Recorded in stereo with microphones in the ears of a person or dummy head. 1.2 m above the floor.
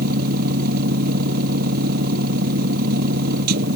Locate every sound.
0.0 s a machine running: 50° right (ahead or behind)